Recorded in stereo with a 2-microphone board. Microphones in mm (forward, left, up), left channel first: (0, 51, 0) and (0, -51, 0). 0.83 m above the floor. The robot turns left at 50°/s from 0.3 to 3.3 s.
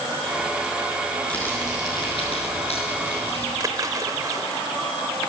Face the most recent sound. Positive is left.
turn(degrees=-35)  # may be behind; listen again after turning